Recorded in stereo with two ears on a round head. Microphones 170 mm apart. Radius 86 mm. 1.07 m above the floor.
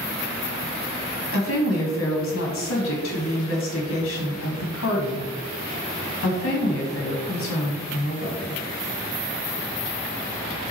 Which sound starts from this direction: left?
A woman speaking, at 1.3 s.